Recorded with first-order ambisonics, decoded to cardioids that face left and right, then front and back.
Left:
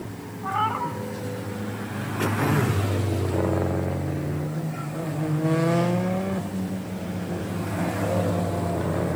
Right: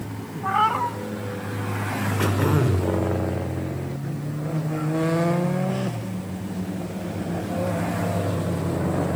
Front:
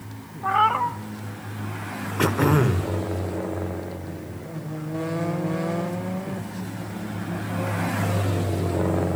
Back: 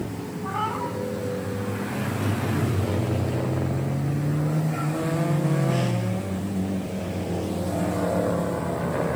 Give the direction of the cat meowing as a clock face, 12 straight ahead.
1 o'clock.